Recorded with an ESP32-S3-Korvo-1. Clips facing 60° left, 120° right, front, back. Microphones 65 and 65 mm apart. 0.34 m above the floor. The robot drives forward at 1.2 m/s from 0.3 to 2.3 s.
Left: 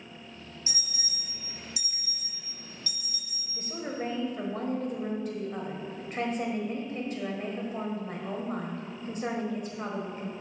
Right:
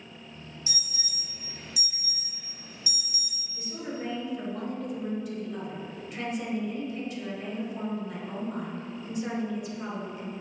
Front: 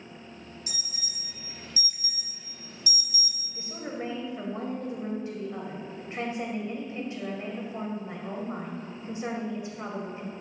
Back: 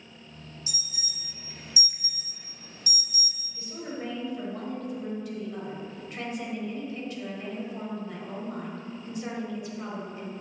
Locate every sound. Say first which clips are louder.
0.7 s an alarm: even, even; 5° left, 1.5 m; by 3.4 s 170° left, 1.3 m
3.5 s a woman speaking: left 1 dB, front 1 dB; 50° left, 1.4 m